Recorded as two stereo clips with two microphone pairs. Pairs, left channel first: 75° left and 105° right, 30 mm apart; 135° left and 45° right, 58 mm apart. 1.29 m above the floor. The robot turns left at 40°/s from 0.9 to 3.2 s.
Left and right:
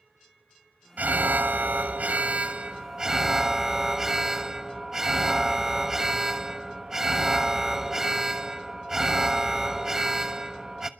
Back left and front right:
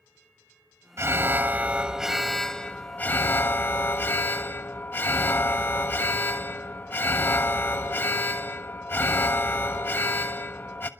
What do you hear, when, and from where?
1.0 s an alarm: 90° right, 1.2 m; by 10.9 s 175° right, 1.2 m